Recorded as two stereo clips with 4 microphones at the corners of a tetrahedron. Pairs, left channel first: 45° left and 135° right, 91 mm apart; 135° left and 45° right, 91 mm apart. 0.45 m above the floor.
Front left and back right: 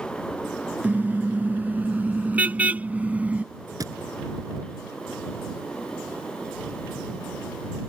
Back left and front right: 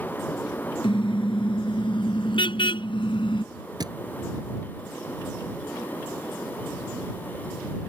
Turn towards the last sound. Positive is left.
turn(degrees=-85)